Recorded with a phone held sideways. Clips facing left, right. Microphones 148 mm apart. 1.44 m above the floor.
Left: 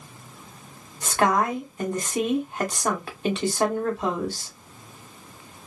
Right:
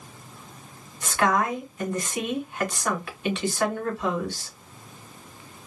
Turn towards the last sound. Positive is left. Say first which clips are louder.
# left 2 dB
turn(degrees=35)  # may be behind; listen again after turning